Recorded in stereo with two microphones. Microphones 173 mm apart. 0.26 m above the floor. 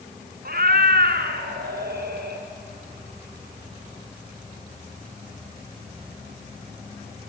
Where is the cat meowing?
70° right (ahead or behind), 1.1 m; by 2.4 s 75° right (ahead or behind), 2 m.